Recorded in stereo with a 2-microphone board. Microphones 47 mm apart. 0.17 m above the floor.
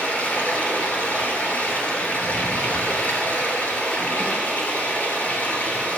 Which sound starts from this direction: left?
Running water, at 0.0 s.